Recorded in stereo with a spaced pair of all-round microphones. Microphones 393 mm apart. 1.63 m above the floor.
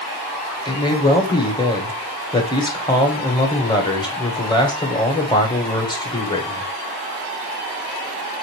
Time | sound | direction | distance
0.7 | a man speaking | 10° left (ahead or behind) | 1.3 m